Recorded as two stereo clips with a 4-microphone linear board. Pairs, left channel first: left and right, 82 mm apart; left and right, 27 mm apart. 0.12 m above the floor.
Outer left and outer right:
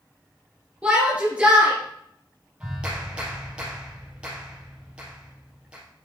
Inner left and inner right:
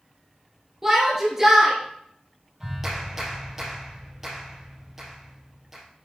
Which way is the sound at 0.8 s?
15° right (ahead or behind).